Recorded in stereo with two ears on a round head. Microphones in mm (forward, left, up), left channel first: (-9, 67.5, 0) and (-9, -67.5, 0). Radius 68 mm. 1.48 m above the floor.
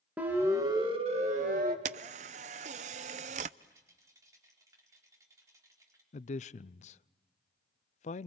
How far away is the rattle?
About 4.5 m.